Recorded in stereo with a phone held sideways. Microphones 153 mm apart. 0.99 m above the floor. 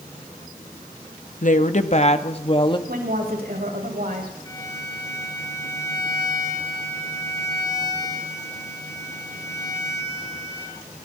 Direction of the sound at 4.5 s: 20° left (ahead or behind).